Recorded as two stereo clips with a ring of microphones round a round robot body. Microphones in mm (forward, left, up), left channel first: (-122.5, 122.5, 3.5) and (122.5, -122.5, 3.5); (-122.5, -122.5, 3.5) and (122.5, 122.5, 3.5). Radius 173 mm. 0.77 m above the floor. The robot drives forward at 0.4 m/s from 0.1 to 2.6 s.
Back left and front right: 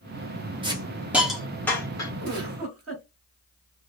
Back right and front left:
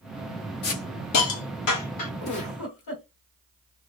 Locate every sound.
0.6 s a hiss: 115° right, 0.9 m; by 2.1 s 150° right, 1.2 m
2.2 s a giggle: 95° right, 1.6 m; by 3.0 s 100° right, 1.6 m